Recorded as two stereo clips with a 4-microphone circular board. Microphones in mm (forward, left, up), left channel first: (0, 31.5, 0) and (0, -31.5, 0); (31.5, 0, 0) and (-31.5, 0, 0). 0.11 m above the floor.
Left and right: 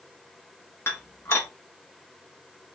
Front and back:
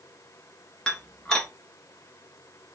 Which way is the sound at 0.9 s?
75° left.